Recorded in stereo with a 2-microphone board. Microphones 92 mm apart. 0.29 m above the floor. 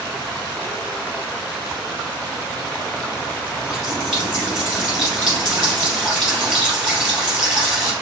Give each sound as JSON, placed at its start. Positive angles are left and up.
{"t": 3.6, "sound": "a running tap", "side_deg": -5, "distance_m": 4.0}